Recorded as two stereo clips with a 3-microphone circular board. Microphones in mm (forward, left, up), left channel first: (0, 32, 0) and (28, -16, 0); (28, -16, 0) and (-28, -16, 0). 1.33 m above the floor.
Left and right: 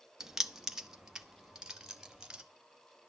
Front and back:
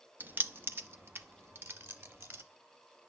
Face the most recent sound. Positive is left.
turn(degrees=-140)